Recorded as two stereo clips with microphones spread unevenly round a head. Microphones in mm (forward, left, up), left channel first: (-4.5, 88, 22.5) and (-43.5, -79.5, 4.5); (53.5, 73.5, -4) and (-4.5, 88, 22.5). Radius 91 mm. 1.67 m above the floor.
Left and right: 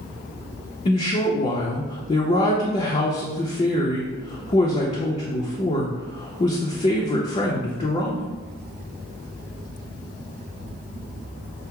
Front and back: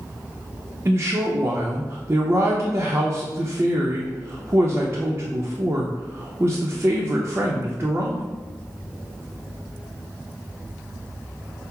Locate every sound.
0.8 s a woman speaking: 130° left, 0.6 m